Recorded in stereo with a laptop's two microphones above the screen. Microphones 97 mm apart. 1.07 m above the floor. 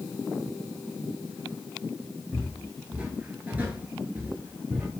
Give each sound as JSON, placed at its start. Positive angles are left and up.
{"t": 2.3, "sound": "footsteps", "side_deg": -10, "distance_m": 1.5}